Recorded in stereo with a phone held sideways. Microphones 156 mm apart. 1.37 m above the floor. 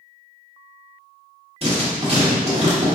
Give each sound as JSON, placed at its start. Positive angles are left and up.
{"t": 1.6, "sound": "writing", "side_deg": -45, "distance_m": 1.4}